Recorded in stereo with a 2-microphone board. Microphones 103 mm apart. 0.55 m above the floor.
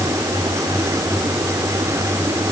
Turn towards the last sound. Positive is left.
No sound to turn to.